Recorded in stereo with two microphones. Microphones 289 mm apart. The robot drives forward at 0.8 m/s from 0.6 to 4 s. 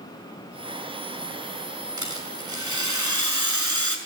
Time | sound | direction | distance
2.0 | a rattle | 80° right | 6 m